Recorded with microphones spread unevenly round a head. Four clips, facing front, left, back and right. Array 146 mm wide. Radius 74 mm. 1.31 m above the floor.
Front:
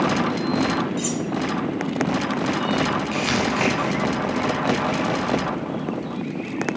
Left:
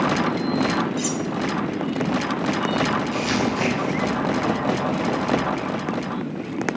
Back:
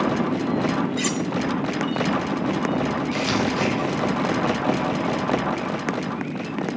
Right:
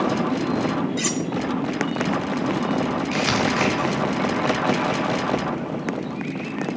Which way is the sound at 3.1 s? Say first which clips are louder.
Right 1 dB, even; 65° right.